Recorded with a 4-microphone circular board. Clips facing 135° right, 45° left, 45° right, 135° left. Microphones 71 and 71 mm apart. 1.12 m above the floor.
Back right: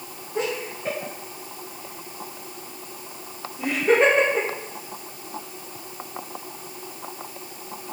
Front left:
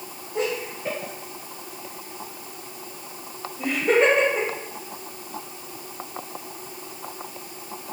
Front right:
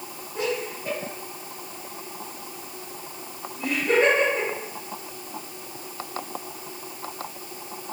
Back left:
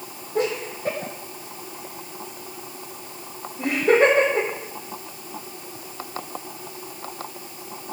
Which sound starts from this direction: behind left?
Laughter, at 0.3 s.